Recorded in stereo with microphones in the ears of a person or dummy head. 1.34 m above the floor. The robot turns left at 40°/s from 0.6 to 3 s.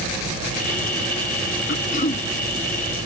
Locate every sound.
1.7 s throat clearing: 50° left (ahead or behind), 0.7 m; by 2.3 s 30° left (ahead or behind), 0.7 m